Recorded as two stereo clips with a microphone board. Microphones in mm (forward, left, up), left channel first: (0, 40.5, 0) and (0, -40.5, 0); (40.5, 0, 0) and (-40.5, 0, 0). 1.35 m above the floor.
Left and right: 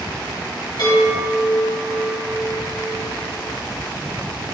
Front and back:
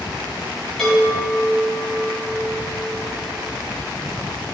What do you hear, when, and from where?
0.8 s a chime: 80° left, 2.5 m